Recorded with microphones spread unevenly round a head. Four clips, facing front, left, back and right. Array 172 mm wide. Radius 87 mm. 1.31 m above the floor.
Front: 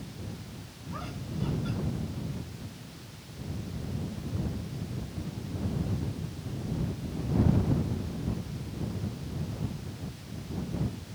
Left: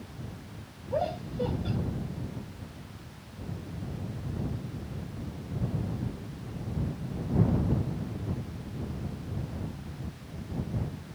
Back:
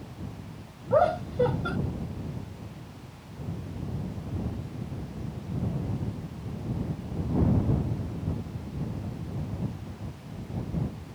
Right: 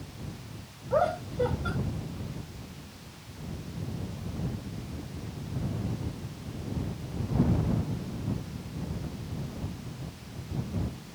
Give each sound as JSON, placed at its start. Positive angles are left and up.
{"t": 0.9, "sound": "laughter", "azimuth_deg": -165}